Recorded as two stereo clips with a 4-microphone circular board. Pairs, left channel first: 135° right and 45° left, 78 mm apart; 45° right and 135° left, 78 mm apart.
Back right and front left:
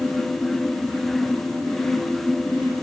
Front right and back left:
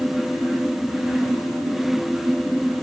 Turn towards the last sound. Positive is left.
No sound to turn to.